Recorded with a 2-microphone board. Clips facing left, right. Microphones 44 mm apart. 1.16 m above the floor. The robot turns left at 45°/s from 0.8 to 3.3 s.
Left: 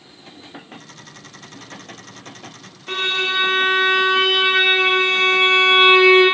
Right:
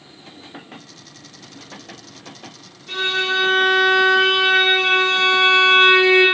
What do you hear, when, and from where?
2.9 s a violin: 45° left (ahead or behind), 0.6 m; by 6.2 s 30° left (ahead or behind), 0.6 m